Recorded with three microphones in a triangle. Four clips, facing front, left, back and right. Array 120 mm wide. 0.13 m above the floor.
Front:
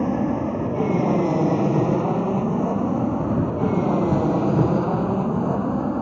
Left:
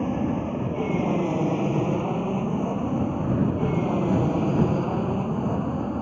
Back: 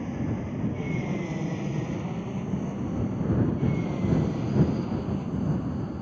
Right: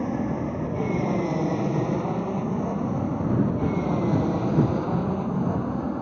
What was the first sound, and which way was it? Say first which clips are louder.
An aircraft: left 1 dB, front 10 dB; 10° left.